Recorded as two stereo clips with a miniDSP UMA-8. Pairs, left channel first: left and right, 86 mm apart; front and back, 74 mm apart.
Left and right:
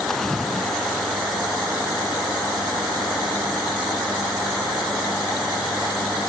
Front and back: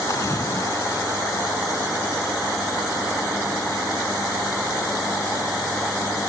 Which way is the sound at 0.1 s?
5° left.